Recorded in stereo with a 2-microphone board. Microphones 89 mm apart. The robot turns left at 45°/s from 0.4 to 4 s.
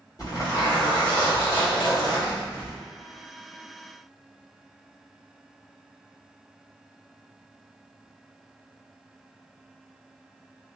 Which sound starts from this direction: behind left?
A zipper, at 0.2 s.